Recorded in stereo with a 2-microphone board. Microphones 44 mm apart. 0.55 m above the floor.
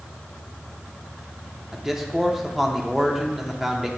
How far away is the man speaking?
About 0.8 m.